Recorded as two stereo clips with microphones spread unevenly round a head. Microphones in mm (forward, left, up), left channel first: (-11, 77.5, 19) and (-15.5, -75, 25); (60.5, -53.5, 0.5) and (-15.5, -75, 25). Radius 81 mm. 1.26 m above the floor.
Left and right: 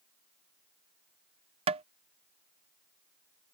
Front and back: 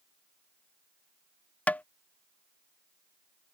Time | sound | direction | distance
1.7 | tapping | 40° right | ?